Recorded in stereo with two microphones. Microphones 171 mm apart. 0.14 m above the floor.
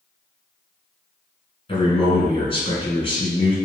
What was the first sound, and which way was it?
A man speaking, 30° left (ahead or behind).